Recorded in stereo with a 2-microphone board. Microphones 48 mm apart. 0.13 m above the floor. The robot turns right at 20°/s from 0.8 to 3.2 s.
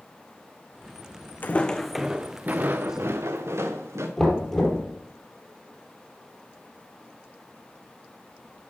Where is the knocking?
5° left (ahead or behind), 3 m.